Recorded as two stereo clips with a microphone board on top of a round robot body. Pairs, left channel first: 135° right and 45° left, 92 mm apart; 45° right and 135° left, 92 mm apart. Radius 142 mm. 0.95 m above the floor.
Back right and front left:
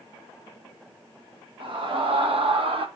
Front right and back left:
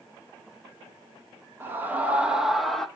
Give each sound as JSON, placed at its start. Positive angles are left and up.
{"t": 1.6, "sound": "a scream", "azimuth_deg": 70, "distance_m": 2.0}